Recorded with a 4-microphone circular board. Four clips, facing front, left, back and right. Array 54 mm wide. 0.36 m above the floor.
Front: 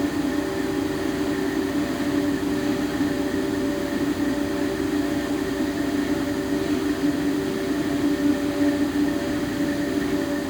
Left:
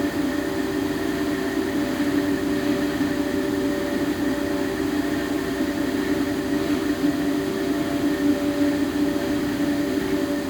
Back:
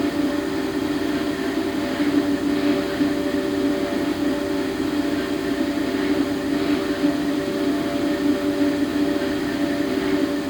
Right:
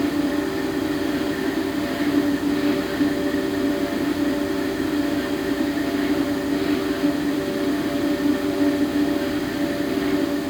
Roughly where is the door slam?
No door slam in this recording.